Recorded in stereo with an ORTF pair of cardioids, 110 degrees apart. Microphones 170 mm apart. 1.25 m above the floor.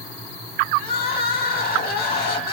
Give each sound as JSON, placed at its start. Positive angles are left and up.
{"t": 0.8, "sound": "crying", "azimuth_deg": 70, "distance_m": 2.0}